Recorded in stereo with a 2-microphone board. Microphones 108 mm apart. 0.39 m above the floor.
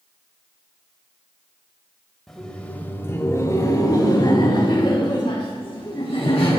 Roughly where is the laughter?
Centre.